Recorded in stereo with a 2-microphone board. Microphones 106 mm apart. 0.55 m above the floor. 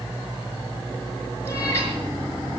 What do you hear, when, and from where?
1.4 s a cat meowing: 25° left (ahead or behind), 4.5 m